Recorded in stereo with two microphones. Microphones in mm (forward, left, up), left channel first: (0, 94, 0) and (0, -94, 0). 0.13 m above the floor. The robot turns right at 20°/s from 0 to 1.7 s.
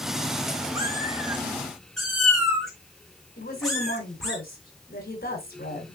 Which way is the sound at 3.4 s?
50° left (ahead or behind).